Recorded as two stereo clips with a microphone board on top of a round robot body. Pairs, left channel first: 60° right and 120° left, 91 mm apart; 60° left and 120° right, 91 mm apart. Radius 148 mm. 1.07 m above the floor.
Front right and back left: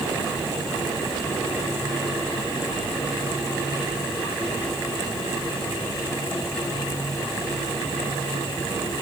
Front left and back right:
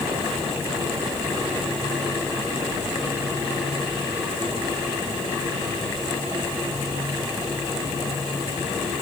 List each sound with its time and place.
Only background noise.